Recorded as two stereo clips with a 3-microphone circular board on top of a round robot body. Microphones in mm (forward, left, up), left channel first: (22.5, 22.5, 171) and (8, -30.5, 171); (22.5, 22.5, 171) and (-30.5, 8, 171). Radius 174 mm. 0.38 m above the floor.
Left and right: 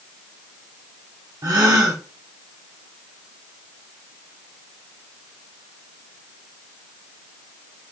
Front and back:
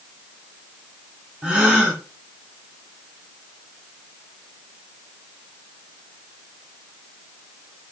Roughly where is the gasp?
Right.